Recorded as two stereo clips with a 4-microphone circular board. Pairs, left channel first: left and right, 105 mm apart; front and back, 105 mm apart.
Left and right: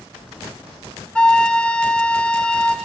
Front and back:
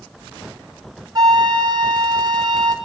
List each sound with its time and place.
1.1 s a flute: 165° left, 1.6 m